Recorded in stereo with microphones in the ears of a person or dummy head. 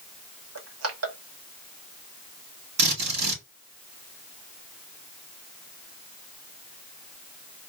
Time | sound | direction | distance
0.6 | crushing | 75° right (ahead or behind) | 1.5 m
2.8 | a drill | 55° right (ahead or behind) | 3 m